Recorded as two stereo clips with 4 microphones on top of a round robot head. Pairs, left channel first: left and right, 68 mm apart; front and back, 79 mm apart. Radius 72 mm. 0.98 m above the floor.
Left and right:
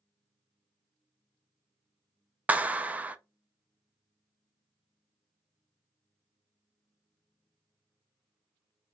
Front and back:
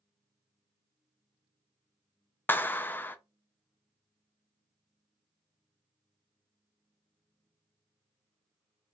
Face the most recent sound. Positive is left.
turn(degrees=-40)